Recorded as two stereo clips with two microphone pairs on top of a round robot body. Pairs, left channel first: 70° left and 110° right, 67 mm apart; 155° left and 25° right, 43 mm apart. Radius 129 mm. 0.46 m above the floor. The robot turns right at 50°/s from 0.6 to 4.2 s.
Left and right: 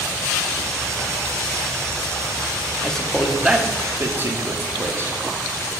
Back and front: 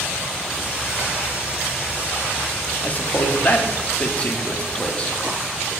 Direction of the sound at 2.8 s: 135° left.